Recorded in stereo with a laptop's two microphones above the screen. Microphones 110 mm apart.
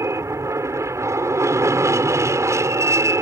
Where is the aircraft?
25° right (ahead or behind).